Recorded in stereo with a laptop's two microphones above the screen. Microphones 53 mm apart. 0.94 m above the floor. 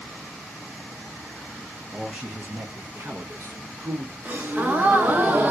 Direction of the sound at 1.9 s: 10° right (ahead or behind).